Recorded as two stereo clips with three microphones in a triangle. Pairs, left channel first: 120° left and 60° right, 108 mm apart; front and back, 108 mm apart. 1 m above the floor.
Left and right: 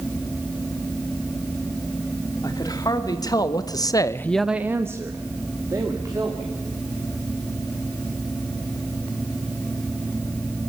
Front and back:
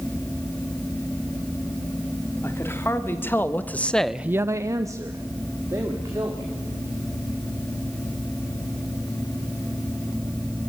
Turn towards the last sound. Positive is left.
turn(degrees=-120)